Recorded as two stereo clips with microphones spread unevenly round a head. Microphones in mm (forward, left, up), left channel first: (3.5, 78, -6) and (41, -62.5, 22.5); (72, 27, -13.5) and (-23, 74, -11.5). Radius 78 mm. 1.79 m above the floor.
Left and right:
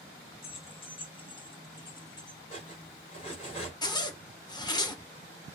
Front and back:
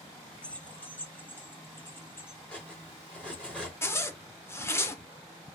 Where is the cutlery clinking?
55° left, 3 m.